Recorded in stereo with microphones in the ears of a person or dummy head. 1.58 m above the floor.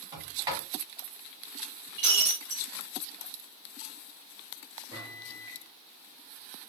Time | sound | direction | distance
0.1 | a sliding door | 20° right (ahead or behind) | 1.6 m
2.0 | breaking glass | 50° right (ahead or behind) | 1.3 m
4.9 | a microwave | 25° right (ahead or behind) | 0.9 m